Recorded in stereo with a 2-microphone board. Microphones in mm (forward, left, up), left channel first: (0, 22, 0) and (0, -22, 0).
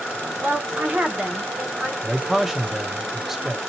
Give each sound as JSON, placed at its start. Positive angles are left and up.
{"t": 0.4, "sound": "a woman speaking", "side_deg": -45, "distance_m": 1.2}
{"t": 2.0, "sound": "a man speaking", "side_deg": -5, "distance_m": 0.7}